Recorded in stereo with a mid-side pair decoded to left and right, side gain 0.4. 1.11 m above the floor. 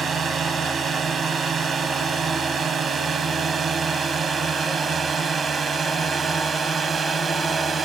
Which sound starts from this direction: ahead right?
A drone, at 0.0 s.